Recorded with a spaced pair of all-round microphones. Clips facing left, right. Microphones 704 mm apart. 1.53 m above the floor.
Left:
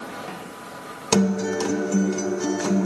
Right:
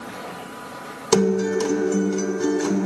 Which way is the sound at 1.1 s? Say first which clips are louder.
Right 3 dB; 15° left (ahead or behind).